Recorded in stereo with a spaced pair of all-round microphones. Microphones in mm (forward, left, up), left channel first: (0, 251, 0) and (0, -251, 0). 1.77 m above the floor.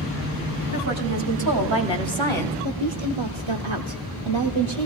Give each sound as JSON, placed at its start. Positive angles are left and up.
{"t": 0.7, "sound": "a woman speaking", "side_deg": -30, "distance_m": 3.0}
{"t": 2.6, "sound": "a woman speaking", "side_deg": -65, "distance_m": 0.9}